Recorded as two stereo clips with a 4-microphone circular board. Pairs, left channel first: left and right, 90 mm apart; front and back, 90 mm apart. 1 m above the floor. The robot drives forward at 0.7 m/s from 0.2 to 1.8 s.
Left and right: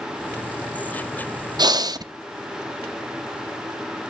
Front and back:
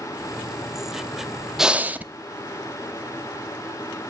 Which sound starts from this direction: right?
Breathing, at 1.6 s.